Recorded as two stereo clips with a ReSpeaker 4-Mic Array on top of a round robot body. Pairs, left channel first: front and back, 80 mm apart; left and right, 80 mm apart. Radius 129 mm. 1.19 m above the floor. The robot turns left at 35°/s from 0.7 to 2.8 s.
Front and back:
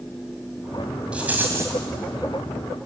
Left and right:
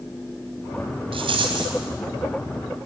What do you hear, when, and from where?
1.1 s a rattle: 100° right, 2.5 m; by 1.8 s 125° right, 2.5 m